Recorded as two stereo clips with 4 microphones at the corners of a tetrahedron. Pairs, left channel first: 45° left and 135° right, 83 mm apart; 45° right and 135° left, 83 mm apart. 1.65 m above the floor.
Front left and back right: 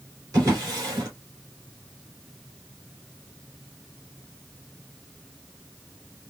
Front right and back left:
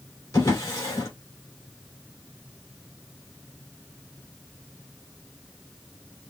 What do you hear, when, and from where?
0.3 s a drawer: 95° right, 2.5 m